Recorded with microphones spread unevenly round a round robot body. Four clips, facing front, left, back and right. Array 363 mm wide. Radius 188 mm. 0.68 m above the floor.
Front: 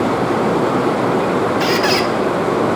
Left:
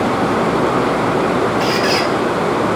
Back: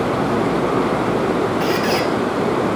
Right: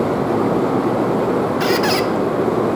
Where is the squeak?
35° right, 0.5 m.